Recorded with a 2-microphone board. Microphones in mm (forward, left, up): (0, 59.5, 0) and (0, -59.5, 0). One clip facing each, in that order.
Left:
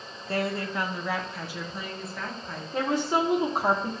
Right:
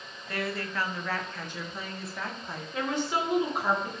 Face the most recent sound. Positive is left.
turn(degrees=35)  # may be behind; listen again after turning